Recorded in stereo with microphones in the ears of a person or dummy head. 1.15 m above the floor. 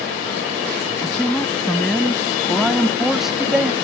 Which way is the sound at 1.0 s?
10° left (ahead or behind).